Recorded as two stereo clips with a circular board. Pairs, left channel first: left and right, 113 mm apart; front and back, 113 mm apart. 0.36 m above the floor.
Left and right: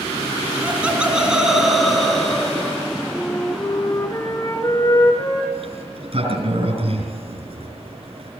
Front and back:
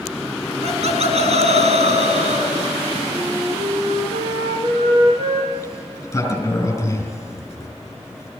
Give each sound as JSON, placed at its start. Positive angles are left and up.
{"t": 0.6, "sound": "laughter", "azimuth_deg": -165, "distance_m": 3.5}
{"t": 3.1, "sound": "a flute", "azimuth_deg": 155, "distance_m": 4.5}
{"t": 5.5, "sound": "a sliding door", "azimuth_deg": -65, "distance_m": 6.0}